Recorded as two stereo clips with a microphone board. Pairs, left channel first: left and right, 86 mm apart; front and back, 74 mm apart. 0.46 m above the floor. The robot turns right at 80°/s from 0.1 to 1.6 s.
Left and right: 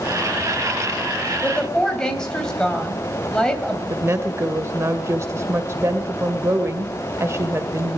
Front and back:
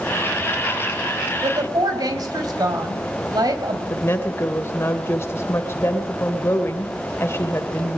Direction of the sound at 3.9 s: 40° right.